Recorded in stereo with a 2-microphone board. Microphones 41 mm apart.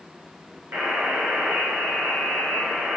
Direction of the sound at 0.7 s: 50° right (ahead or behind).